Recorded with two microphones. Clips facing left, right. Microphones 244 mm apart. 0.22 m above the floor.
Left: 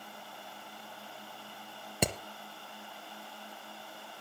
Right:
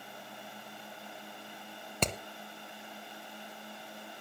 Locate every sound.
2.0 s hammering: 10° left (ahead or behind), 0.9 m